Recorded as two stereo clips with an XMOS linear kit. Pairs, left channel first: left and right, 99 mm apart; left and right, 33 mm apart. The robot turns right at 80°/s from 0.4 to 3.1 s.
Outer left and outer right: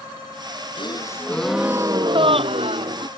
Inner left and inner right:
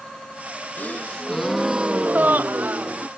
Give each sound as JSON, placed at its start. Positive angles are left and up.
{"t": 0.8, "sound": "a gasp", "azimuth_deg": 125}